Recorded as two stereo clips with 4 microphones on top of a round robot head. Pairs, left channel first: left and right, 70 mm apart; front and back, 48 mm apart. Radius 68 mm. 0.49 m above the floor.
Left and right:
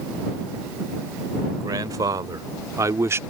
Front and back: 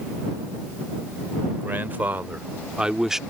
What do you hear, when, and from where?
1.6 s a man speaking: 125° right; by 3.2 s 95° right